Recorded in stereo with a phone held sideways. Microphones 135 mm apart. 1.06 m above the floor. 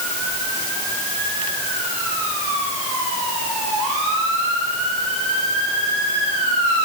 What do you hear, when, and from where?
Only background noise.